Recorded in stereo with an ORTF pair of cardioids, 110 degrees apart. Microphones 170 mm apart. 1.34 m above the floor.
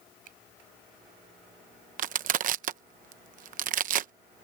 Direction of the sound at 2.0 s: 50° right.